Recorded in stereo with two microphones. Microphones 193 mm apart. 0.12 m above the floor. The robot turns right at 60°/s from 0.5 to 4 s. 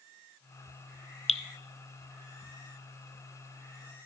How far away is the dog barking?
No dog barking in this recording.